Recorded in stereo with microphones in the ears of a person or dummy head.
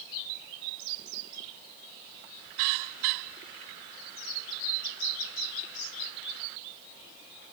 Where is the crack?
I don't hear a crack.